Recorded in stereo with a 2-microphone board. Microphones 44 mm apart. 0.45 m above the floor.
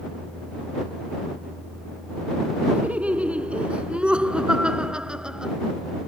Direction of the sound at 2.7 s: 35° right (ahead or behind).